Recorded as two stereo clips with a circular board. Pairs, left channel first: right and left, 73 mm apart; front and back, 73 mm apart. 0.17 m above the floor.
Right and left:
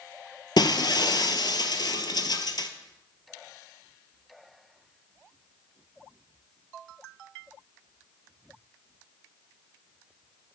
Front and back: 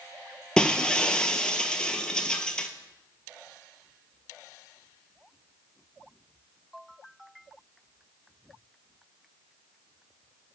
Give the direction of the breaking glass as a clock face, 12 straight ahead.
3 o'clock.